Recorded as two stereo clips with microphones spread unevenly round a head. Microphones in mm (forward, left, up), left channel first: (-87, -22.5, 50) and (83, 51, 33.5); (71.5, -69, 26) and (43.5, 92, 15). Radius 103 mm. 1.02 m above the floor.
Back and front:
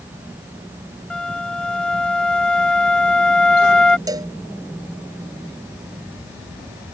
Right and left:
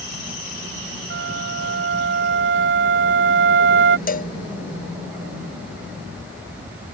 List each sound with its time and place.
1.1 s a flute: 120° left
4.1 s a cowbell: 50° right